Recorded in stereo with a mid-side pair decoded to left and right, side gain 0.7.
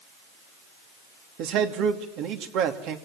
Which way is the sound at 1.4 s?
65° right.